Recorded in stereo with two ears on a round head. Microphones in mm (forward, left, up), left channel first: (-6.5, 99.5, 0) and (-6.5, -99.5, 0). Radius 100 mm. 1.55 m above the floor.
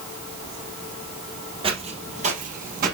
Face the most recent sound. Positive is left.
turn(degrees=-45)  # may be behind; listen again after turning